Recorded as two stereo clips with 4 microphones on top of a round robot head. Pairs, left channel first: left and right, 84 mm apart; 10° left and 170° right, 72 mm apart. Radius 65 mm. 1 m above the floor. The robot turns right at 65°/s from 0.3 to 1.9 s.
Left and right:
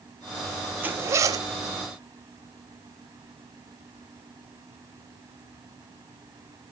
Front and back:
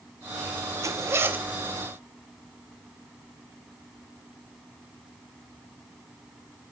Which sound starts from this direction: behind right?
A zipper, at 0.8 s.